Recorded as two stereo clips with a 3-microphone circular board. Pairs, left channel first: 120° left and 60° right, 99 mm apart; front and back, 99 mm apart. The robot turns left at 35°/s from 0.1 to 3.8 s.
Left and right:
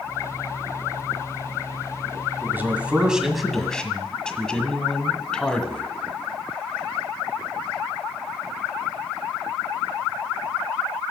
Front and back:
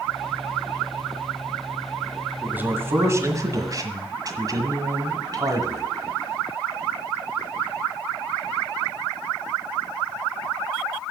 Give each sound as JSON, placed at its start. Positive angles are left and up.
{"t": 2.4, "sound": "a man speaking", "azimuth_deg": -115, "distance_m": 1.4}